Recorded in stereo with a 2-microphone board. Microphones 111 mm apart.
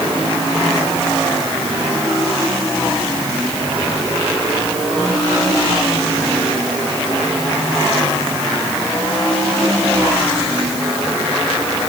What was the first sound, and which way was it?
Only background noise.